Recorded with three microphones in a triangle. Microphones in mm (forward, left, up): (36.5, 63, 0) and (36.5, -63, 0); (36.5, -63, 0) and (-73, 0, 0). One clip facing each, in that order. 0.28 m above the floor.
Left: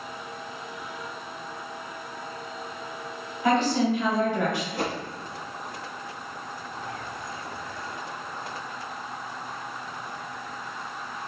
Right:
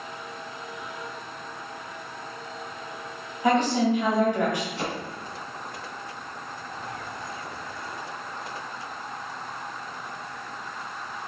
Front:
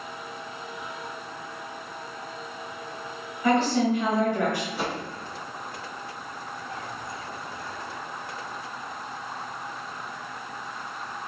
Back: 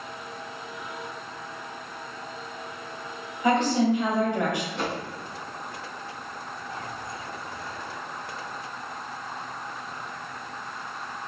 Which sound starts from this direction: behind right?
A woman speaking, at 3.4 s.